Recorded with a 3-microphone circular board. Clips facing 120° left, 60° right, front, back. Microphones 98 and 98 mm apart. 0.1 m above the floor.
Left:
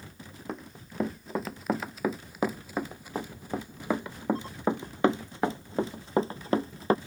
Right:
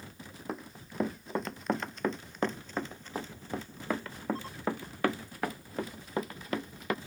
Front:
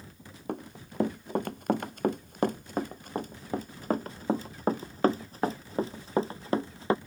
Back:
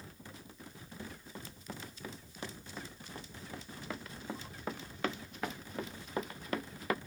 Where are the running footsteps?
30° left; by 7.0 s 65° left.